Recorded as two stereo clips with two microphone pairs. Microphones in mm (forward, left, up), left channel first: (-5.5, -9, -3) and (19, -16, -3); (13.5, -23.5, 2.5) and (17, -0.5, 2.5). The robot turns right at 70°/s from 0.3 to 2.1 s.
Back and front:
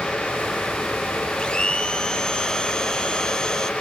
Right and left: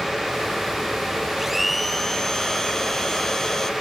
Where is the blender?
155° left, 1.6 m; by 3.7 s 155° right, 1.6 m.